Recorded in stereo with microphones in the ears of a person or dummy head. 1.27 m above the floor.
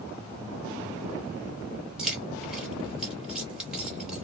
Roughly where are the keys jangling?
Centre.